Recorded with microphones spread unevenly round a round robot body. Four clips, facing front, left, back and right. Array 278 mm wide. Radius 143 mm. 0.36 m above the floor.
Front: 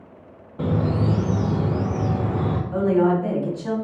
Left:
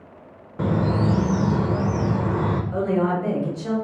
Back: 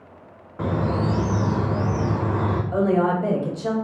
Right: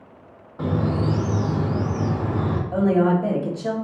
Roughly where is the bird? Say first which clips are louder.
Left 1 dB, front 1 dB; left.